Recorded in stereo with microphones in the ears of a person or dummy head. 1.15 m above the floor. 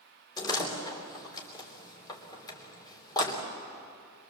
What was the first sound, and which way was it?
A door slam, 20° left (ahead or behind).